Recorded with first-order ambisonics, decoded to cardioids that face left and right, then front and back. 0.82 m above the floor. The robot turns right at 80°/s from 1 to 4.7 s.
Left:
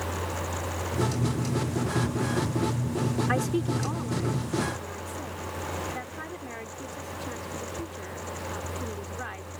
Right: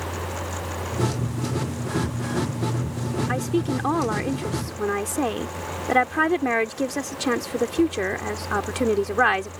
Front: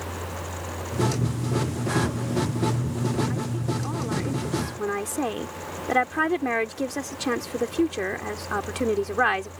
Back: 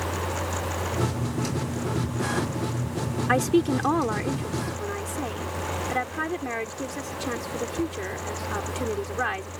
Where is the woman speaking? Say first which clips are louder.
Right 5 dB, back 9 dB; 175° left; by 9.5 s 70° right.